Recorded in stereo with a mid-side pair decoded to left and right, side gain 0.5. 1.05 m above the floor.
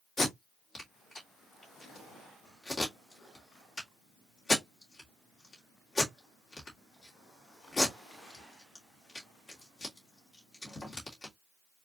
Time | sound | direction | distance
0.2 | tape being pulled | 35° left | 2.5 m